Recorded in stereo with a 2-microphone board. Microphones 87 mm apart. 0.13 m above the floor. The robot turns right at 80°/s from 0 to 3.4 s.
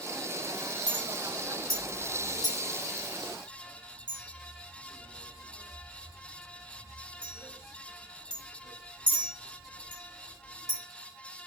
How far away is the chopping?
No chopping in this recording.